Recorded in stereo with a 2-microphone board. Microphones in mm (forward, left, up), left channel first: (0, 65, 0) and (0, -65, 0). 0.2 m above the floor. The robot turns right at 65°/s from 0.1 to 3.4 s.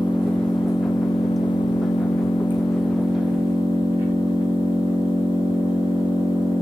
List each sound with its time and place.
0.0 s an engine running: 10° right, 6 m; by 6.6 s 155° right, 6 m